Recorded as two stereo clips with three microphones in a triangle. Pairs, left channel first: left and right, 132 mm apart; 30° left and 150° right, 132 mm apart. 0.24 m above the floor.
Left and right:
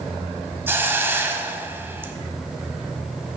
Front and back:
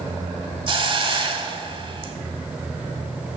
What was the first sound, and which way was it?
A hiss, 155° right.